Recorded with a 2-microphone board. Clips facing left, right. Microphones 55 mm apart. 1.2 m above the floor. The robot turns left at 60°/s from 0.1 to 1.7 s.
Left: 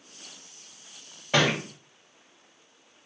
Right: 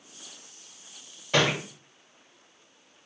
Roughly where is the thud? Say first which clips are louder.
Left 1 dB; centre.